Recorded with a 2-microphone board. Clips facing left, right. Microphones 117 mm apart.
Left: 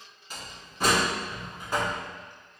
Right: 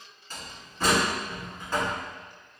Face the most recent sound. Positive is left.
turn(degrees=15)  # may be behind; listen again after turning